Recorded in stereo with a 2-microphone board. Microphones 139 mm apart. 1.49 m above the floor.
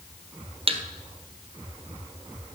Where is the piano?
I don't hear a piano.